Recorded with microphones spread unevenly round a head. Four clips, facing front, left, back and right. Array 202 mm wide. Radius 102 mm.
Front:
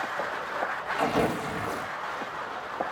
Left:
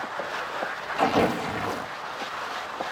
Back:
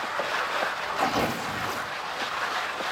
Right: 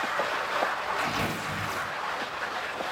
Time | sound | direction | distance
1.0 | tearing paper | 85° left | 1.7 m